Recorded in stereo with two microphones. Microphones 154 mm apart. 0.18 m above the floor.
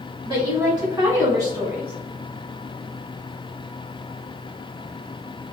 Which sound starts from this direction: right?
A woman speaking, at 0.2 s.